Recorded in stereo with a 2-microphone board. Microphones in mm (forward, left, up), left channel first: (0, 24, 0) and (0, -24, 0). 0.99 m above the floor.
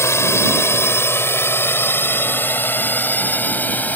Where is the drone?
65° left (ahead or behind); by 4.0 s 35° left (ahead or behind).